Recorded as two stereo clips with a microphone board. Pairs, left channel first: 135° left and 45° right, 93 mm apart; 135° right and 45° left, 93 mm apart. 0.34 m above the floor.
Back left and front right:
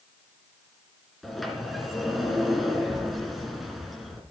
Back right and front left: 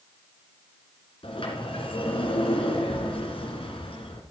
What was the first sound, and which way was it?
A sliding door, 135° right.